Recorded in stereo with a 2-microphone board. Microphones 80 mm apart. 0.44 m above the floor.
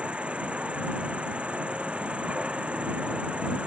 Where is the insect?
15° right (ahead or behind).